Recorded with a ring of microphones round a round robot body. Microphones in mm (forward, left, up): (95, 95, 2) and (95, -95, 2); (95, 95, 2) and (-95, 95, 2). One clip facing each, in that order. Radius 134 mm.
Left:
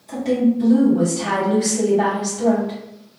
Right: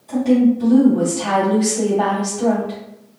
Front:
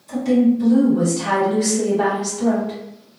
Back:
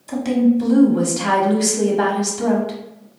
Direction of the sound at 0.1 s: 170° left.